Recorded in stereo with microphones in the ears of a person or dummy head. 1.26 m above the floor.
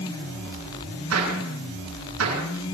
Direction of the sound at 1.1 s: 80° right.